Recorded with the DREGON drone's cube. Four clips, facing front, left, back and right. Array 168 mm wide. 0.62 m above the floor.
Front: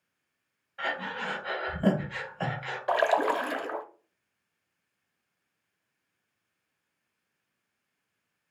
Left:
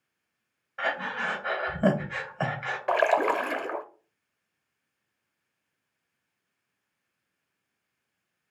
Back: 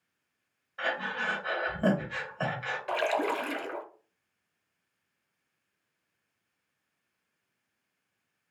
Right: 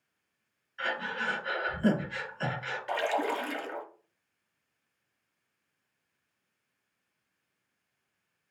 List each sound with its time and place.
0.8 s breathing: 105° left, 2.5 m
2.9 s a splash: 65° left, 0.8 m